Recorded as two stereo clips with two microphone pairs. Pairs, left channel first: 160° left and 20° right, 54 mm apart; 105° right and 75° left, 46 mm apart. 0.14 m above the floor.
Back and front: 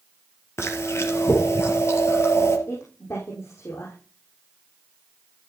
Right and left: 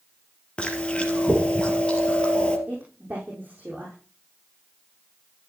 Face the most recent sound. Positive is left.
turn(degrees=130)